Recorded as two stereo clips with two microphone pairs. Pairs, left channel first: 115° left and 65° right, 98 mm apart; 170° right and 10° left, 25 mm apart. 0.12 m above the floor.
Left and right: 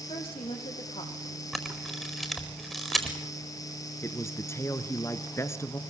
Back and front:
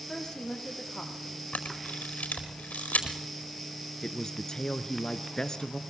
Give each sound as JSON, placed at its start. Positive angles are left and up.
{"t": 0.1, "sound": "a woman speaking", "azimuth_deg": 130, "distance_m": 5.5}
{"t": 1.5, "sound": "a camera shutter", "azimuth_deg": -160, "distance_m": 4.5}
{"t": 4.0, "sound": "a man speaking", "azimuth_deg": 155, "distance_m": 1.3}